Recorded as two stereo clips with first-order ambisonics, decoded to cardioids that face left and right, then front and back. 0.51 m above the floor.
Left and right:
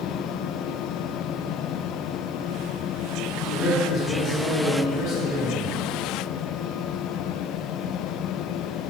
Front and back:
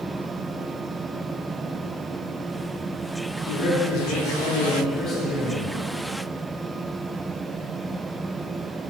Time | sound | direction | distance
3.5 | a man speaking | 5° right | 1.1 m